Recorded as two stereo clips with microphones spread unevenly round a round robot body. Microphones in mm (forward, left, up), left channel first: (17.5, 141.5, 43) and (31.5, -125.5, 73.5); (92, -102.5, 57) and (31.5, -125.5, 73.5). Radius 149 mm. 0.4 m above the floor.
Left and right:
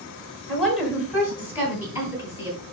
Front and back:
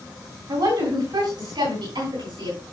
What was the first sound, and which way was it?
A woman speaking, straight behind.